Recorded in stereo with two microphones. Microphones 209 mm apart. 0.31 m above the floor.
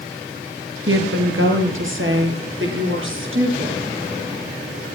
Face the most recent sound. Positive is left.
turn(degrees=-70)  # may be behind; listen again after turning